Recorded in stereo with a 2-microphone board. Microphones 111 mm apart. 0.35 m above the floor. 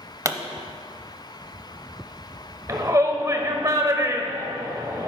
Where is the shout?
30° right (ahead or behind), 1.1 m.